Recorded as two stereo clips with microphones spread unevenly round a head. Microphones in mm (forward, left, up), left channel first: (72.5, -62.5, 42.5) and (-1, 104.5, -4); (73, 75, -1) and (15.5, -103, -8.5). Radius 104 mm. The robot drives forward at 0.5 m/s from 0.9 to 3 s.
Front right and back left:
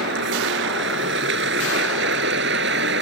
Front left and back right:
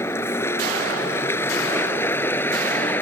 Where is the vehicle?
150° left; by 3.0 s 155° left.